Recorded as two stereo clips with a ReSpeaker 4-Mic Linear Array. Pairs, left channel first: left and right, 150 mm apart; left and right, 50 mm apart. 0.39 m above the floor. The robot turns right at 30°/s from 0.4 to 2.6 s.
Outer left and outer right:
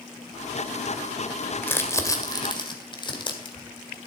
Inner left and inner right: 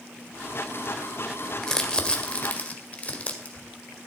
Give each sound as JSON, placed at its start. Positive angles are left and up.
{"t": 1.6, "sound": "crumpling", "side_deg": 10, "distance_m": 1.9}